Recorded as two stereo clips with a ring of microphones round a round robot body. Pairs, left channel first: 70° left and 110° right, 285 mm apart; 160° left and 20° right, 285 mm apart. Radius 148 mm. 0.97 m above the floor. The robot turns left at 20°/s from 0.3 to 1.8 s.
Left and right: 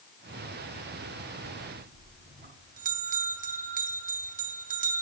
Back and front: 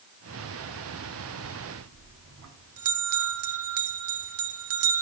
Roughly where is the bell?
Ahead right.